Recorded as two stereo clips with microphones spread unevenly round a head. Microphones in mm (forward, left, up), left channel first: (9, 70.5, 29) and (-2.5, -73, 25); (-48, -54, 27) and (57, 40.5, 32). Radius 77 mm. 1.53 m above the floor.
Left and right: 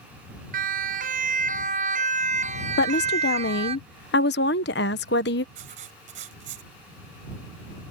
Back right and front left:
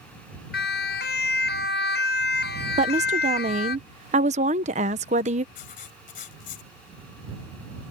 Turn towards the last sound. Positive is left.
turn(degrees=-125)